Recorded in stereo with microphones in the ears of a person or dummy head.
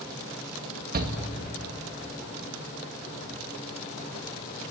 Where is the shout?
45° right (ahead or behind), 2 m.